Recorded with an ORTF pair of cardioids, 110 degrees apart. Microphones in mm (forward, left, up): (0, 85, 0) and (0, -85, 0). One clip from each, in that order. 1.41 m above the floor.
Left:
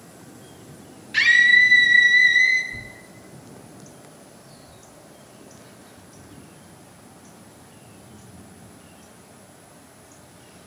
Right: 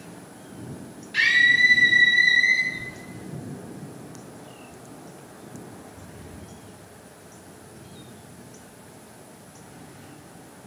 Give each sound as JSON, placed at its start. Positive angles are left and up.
{"t": 1.1, "sound": "a scream", "azimuth_deg": 30, "distance_m": 1.7}
{"t": 2.7, "sound": "tearing paper", "azimuth_deg": 60, "distance_m": 2.0}